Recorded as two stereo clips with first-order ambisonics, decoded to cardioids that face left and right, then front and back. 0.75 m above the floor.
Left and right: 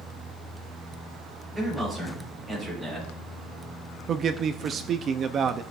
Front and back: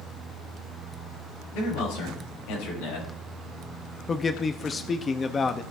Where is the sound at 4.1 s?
55° right, 0.6 m.